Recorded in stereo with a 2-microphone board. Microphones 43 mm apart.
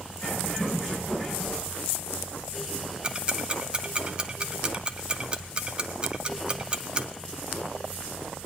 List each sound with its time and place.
0.2 s a bird: 30° left (ahead or behind), 7 m
3.0 s ticking: 25° right (ahead or behind), 1.0 m